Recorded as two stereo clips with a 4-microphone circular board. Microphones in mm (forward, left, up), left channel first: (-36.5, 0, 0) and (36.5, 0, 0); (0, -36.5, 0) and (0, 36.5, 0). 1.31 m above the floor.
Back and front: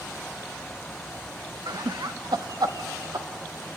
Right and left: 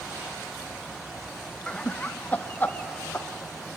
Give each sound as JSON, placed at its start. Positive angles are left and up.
{"t": 1.7, "sound": "laughter", "azimuth_deg": -10, "distance_m": 0.8}